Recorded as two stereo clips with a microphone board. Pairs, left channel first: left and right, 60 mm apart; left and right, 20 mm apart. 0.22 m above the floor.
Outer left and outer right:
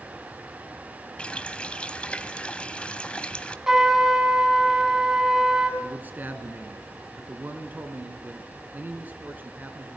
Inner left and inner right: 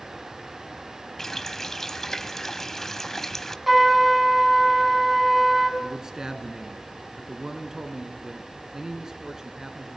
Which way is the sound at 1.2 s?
20° left (ahead or behind).